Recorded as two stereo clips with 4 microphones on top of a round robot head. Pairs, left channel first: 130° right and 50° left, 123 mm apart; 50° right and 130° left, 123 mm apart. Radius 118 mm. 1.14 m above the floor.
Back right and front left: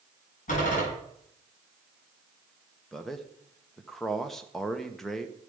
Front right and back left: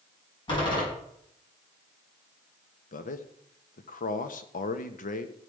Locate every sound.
0.5 s a door slam: 105° right, 7 m
2.9 s a man speaking: 40° right, 1.2 m